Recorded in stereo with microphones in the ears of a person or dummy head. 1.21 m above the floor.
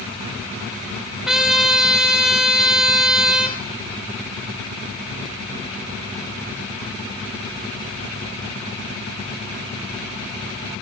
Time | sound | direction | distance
1.3 | a trumpet | centre (ahead or behind) | 1.3 m